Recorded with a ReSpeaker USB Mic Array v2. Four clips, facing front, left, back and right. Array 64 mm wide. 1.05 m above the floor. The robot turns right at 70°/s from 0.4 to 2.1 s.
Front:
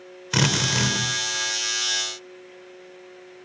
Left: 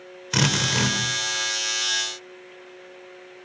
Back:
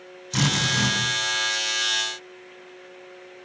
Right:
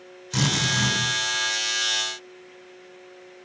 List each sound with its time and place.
0.3 s a drill: 35° left, 4.5 m; by 1.0 s 75° left, 4.5 m